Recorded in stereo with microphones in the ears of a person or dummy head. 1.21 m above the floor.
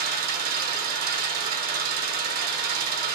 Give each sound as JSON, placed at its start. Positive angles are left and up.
{"t": 0.0, "sound": "an engine running", "side_deg": -50, "distance_m": 0.8}